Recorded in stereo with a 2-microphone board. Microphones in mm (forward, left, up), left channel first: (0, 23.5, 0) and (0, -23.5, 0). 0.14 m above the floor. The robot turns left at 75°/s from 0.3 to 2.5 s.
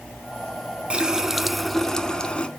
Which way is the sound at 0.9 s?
20° right (ahead or behind).